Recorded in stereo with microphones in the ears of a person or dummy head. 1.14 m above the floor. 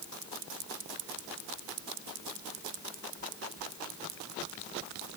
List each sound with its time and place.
Only background noise.